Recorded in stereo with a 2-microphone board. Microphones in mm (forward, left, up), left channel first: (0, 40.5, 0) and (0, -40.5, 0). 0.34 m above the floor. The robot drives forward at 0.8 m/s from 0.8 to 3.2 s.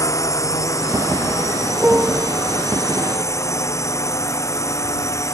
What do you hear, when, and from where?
0.0 s a drone: 40° left (ahead or behind); by 5.3 s 35° left (ahead or behind)
1.8 s a piano: 20° right (ahead or behind)